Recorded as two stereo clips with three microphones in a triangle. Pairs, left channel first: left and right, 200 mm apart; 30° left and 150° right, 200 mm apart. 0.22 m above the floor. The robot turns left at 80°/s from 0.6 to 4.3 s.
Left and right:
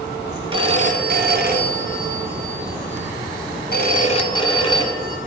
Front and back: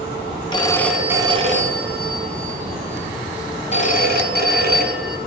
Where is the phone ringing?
35° right, 1.6 m; by 5.2 s 30° left, 1.6 m.